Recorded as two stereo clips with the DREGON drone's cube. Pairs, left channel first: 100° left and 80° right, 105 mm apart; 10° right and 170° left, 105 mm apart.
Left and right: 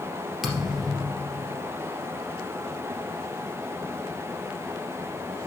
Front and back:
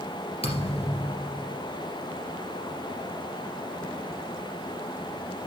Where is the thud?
10° left, 2.5 m.